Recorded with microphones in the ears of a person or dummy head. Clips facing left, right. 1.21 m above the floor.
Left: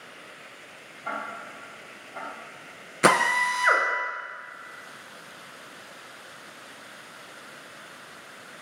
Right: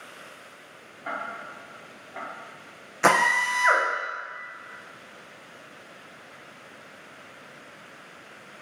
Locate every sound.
1.1 s ticking: 10° right (ahead or behind), 1.3 m
3.0 s a drill: 35° left (ahead or behind), 0.6 m